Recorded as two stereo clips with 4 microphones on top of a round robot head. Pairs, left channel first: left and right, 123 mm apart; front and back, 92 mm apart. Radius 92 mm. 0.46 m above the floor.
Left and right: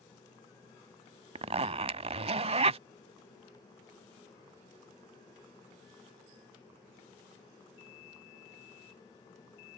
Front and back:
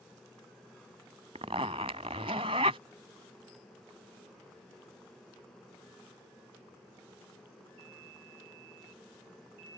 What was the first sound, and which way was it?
A zipper, 125° right.